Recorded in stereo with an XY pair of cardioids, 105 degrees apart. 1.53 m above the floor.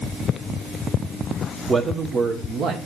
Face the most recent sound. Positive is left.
turn(degrees=-75)